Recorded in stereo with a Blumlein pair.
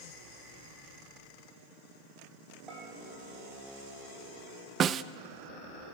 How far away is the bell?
About 7 m.